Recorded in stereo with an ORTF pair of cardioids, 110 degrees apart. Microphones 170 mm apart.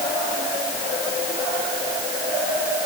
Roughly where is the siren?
I don't hear a siren.